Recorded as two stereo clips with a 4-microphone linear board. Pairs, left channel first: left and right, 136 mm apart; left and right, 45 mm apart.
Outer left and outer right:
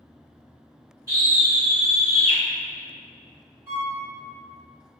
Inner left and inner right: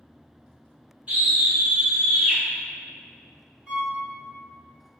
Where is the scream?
30° right (ahead or behind), 1.8 m; by 2.4 s 25° right (ahead or behind), 1.5 m.